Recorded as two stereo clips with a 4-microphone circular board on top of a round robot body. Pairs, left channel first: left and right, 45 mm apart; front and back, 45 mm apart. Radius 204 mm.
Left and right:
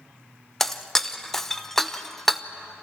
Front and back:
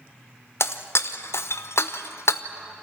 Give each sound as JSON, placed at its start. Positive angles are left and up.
{"t": 0.6, "sound": "breaking glass", "azimuth_deg": 10, "distance_m": 0.9}